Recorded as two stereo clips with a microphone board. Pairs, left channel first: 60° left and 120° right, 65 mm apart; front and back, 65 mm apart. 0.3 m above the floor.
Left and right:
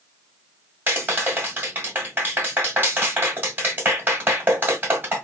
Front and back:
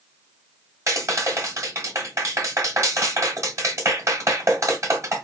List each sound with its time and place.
0.9 s a clap: 170° right, 1.5 m